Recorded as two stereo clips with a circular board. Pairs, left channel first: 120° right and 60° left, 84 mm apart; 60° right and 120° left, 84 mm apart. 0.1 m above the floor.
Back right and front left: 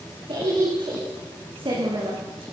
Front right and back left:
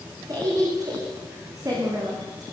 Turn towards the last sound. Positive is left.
turn(degrees=75)